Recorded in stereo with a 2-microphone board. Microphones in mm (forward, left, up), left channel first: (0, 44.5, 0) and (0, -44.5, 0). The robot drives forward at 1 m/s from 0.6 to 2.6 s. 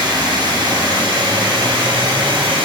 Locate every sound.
0.0 s running water: 65° right (ahead or behind), 6.5 m; by 2.7 s 80° right, 5.5 m